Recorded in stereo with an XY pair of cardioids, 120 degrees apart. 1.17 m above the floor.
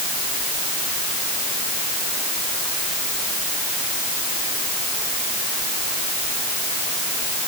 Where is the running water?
No running water in this recording.